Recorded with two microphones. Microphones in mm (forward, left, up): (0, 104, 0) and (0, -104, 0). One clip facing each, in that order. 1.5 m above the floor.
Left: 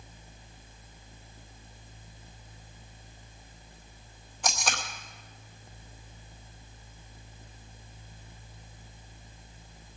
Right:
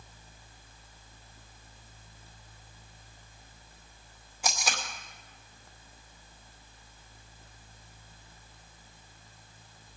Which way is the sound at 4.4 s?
10° right (ahead or behind).